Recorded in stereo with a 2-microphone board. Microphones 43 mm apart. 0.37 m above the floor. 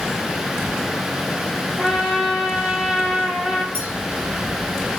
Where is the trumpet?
10° right (ahead or behind), 1.6 m.